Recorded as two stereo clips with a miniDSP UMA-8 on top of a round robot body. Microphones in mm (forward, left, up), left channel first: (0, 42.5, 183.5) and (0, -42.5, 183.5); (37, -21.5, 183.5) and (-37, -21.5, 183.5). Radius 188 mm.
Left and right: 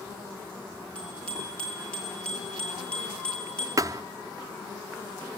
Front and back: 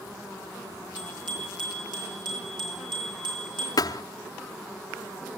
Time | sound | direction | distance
0.9 | a bicycle bell | 170° left | 8.5 m
3.8 | a thud | 35° right | 0.5 m